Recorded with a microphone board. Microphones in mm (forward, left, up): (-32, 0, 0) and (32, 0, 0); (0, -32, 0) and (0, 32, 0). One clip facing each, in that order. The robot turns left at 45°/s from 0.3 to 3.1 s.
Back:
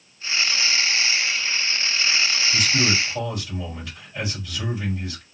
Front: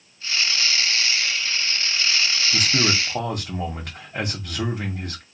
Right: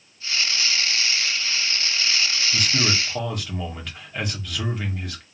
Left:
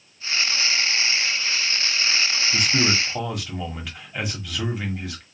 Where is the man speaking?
30° left, 1.7 m; by 5.2 s 5° left, 1.7 m.